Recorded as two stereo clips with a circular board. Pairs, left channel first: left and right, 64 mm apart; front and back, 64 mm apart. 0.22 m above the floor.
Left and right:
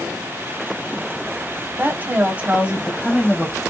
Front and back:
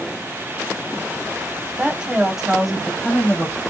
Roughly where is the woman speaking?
Behind right.